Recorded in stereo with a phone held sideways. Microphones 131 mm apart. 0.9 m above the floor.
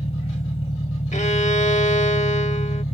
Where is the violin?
65° left (ahead or behind).